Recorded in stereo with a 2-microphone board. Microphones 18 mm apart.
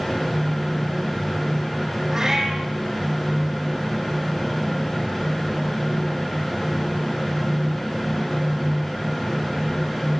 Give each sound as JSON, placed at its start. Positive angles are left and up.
{"t": 2.1, "sound": "a cat meowing", "side_deg": -25, "distance_m": 6.5}